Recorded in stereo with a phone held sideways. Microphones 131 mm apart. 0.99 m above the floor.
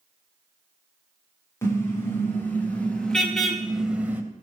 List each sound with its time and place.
1.6 s a car horn: 20° left (ahead or behind), 5.5 m; by 4.2 s 15° right (ahead or behind), 2.5 m